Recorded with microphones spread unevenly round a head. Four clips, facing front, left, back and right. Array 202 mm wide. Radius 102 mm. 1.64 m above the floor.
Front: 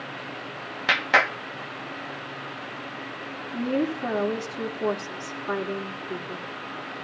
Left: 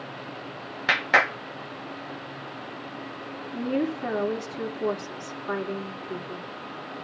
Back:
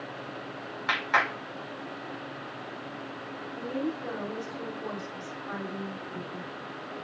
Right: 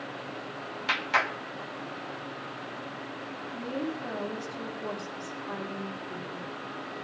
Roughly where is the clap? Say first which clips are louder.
Left 6 dB, front 4 dB; ahead left.